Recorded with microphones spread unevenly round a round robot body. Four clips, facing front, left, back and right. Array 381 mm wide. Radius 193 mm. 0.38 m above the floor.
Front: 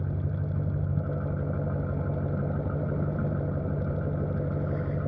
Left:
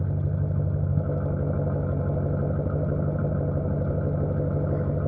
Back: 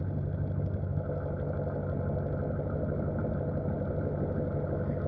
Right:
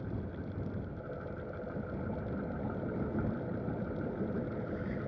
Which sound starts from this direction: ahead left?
An engine running, at 0.0 s.